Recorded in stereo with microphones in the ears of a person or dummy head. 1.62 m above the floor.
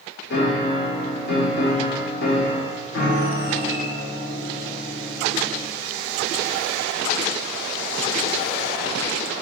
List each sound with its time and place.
0.3 s a piano: 60° left (ahead or behind), 0.8 m